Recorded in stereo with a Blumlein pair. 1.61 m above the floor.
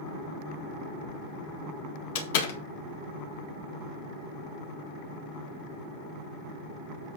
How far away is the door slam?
About 1.6 m.